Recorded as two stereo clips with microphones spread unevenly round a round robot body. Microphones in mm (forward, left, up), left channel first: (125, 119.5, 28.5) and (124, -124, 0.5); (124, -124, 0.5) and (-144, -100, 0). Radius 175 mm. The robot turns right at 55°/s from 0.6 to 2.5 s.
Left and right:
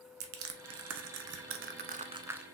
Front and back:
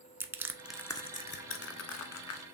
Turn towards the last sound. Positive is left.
turn(degrees=5)